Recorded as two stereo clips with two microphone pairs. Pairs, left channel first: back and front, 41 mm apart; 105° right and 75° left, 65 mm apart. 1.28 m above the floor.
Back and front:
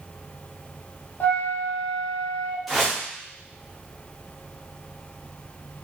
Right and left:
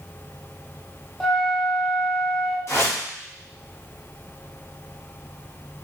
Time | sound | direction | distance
1.2 | a flute | 170° left | 0.5 m
2.7 | a whoosh | 90° right | 0.7 m